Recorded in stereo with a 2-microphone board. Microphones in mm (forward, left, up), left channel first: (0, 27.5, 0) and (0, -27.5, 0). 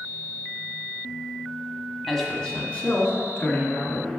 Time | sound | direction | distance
2.1 | a man speaking | 5° left (ahead or behind) | 1.2 m